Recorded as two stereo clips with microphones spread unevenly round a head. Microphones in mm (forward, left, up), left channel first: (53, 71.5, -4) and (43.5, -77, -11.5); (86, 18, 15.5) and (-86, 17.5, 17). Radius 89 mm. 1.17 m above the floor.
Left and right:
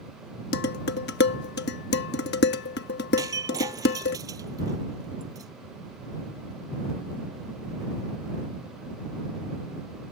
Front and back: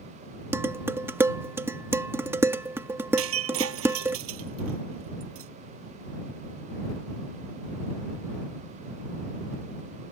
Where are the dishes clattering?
105° left.